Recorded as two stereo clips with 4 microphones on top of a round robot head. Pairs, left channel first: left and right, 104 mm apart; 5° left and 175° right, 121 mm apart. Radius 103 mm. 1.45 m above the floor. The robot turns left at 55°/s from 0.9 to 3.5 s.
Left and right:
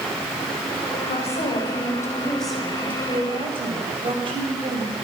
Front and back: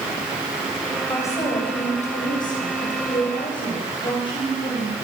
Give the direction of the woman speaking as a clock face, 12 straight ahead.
9 o'clock.